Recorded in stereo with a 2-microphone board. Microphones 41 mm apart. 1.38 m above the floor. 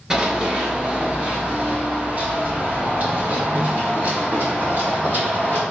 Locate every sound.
0.1 s running footsteps: 20° right (ahead or behind), 1.4 m; by 5.6 s 65° right (ahead or behind), 3.5 m